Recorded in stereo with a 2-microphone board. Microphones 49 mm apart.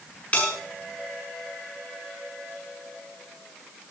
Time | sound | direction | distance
0.3 | a bell | 30° left (ahead or behind) | 7 m